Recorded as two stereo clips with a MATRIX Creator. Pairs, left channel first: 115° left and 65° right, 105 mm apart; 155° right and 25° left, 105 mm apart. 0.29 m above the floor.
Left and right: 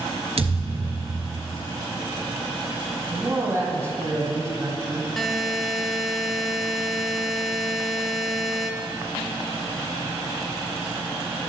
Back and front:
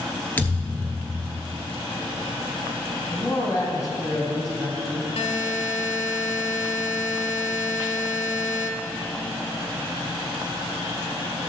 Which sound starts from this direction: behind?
A buzzer, at 5.2 s.